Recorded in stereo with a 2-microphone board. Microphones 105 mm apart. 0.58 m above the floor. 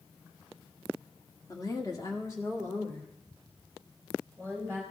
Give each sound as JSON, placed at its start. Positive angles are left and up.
{"t": 1.5, "sound": "a woman speaking", "side_deg": 35, "distance_m": 1.4}